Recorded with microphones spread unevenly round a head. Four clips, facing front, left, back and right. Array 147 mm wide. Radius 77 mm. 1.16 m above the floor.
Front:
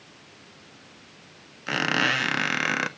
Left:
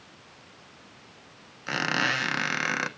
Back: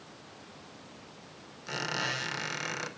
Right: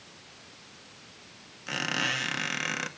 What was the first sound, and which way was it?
A squeak, 15° left.